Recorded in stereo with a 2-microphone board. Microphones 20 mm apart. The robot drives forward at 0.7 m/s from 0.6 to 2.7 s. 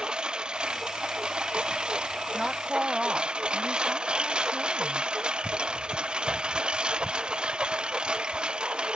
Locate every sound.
0.0 s a lawn mower: 50° right (ahead or behind); by 9.0 s 55° right (ahead or behind)
2.3 s a woman speaking: 30° right (ahead or behind); by 5.1 s 25° right (ahead or behind)